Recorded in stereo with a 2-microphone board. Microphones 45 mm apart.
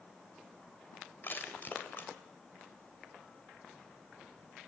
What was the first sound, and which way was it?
Crushing, 45° left (ahead or behind).